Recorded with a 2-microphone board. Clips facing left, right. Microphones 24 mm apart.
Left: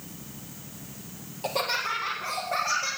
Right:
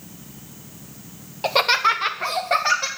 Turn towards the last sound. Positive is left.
turn(degrees=-75)  # may be behind; listen again after turning